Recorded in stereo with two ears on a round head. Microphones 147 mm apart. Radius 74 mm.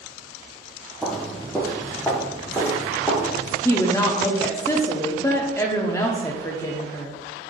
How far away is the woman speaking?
About 0.7 m.